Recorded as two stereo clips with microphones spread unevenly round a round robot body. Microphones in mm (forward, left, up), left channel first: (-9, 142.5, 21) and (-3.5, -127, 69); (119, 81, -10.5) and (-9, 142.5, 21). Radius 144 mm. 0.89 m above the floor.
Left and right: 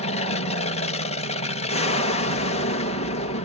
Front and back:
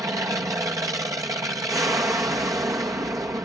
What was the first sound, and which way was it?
An aircraft, 85° left.